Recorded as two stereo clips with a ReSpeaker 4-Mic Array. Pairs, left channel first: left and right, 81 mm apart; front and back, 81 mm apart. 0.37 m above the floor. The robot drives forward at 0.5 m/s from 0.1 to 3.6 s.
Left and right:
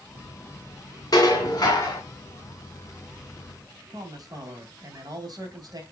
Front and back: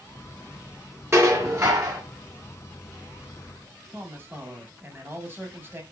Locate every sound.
1.1 s dishes clattering: 125° left, 2.5 m; by 2.0 s 135° left, 2.5 m
3.9 s a man speaking: 120° right, 2 m